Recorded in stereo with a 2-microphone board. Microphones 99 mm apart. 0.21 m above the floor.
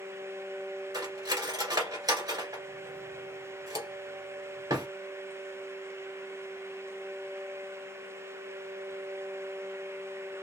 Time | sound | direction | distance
0.9 | cutlery clinking | 45° right (ahead or behind) | 1.6 m